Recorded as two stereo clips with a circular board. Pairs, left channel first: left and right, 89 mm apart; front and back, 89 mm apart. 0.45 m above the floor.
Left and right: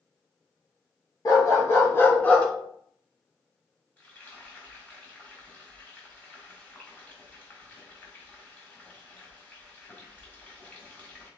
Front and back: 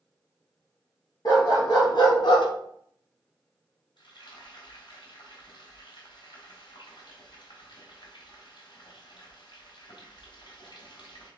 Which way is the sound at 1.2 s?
40° left.